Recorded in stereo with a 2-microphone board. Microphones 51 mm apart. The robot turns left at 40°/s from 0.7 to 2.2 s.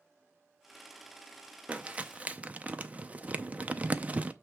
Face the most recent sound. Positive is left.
turn(degrees=-25)  # may be behind; listen again after turning